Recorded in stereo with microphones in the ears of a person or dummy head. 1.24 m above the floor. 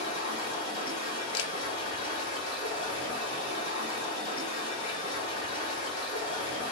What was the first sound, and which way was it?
Running water, 40° left (ahead or behind).